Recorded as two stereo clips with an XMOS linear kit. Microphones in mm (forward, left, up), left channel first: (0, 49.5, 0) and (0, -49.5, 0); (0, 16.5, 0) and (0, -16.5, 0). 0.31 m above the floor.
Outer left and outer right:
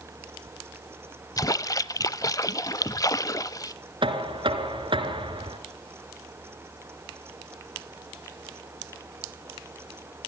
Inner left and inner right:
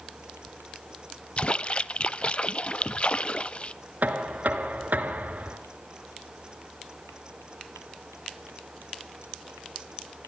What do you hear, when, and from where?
1.4 s a splash: 35° left (ahead or behind), 0.5 m
4.0 s knocking: 55° right (ahead or behind), 2.5 m